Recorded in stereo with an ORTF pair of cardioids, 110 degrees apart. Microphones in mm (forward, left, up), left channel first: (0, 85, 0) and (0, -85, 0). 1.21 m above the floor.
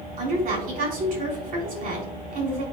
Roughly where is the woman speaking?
Ahead right.